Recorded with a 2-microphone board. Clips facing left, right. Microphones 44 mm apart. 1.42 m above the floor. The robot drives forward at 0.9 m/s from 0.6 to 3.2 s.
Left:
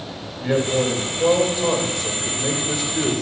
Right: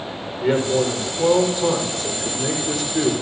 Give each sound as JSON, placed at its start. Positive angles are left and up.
{"t": 0.4, "sound": "a man speaking", "side_deg": -55, "distance_m": 5.0}